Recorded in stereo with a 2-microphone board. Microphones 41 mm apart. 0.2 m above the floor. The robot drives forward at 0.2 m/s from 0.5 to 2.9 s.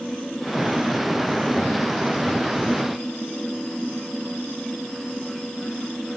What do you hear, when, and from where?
Only background noise.